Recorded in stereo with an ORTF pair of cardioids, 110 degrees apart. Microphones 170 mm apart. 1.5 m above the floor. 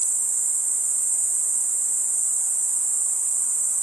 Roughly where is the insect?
Ahead right.